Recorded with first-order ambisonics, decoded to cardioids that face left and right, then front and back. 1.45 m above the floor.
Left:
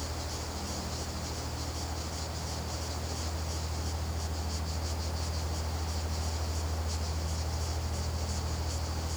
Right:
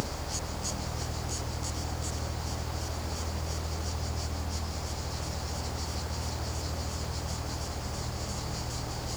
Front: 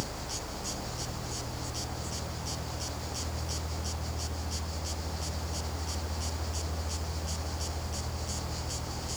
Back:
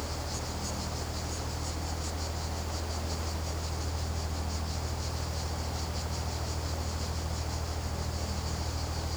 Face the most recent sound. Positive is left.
No sound to turn to.